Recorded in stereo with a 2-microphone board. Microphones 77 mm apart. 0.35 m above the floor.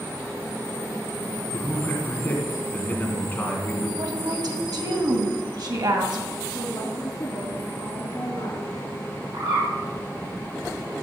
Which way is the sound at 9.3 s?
75° right (ahead or behind).